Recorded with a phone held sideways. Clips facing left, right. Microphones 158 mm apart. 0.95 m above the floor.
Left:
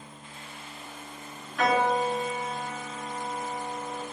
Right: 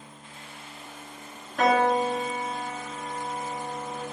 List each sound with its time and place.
1.6 s a piano: 45° right (ahead or behind), 0.9 m